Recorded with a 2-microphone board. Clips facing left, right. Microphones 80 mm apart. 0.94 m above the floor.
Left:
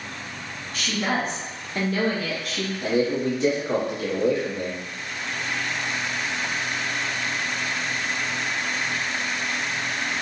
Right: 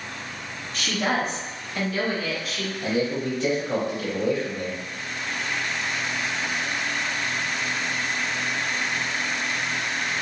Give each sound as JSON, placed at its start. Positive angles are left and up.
{"t": 0.7, "sound": "a woman speaking", "side_deg": -30, "distance_m": 1.4}
{"t": 2.8, "sound": "a man speaking", "side_deg": 25, "distance_m": 1.6}